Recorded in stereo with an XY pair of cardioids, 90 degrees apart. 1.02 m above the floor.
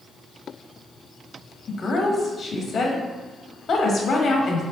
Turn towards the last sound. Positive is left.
turn(degrees=65)